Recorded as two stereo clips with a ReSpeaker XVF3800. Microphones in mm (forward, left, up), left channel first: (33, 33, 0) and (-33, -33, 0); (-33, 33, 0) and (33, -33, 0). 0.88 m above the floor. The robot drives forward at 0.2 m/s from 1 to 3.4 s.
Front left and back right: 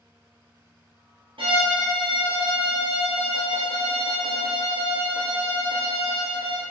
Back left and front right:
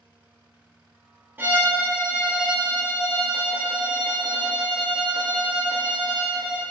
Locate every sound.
1.4 s a violin: 110° right, 0.8 m; by 6.6 s 135° right, 1.0 m